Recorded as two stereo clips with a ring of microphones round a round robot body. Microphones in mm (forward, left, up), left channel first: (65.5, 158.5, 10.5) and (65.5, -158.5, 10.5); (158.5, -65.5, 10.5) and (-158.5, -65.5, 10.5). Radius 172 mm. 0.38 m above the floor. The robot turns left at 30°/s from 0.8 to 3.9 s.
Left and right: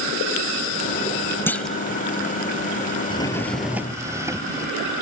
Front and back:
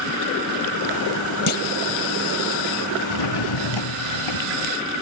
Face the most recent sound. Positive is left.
turn(degrees=-10)